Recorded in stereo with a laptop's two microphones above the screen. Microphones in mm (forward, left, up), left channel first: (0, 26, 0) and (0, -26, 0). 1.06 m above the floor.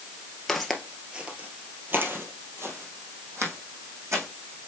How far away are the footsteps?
About 1.1 m.